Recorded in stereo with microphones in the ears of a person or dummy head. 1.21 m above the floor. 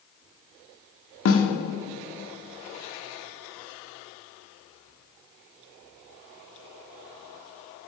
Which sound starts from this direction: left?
A snare drum, at 1.2 s.